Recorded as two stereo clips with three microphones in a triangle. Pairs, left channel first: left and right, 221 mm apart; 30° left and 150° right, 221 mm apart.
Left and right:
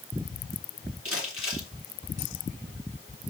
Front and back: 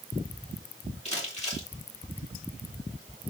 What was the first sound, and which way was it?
Crumpling, 90° left.